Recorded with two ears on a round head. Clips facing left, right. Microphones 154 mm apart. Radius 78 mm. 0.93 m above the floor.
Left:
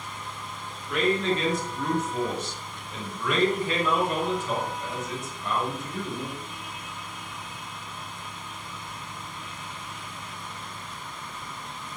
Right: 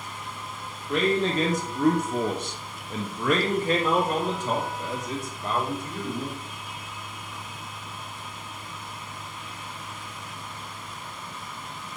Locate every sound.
0.9 s a man speaking: 25° right (ahead or behind), 1.1 m; by 6.3 s 30° right (ahead or behind), 3 m